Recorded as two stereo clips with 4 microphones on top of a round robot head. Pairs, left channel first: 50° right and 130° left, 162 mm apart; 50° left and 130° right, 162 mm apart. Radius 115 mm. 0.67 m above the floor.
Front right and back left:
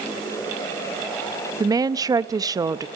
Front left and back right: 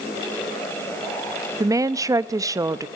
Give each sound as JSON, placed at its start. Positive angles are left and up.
{"t": 1.6, "sound": "a woman speaking", "azimuth_deg": 180, "distance_m": 0.8}